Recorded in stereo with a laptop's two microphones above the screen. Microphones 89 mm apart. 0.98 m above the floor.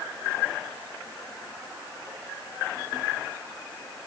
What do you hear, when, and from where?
Only background noise.